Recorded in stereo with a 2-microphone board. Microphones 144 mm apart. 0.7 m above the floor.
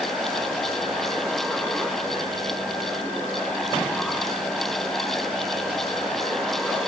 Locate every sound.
Only background noise.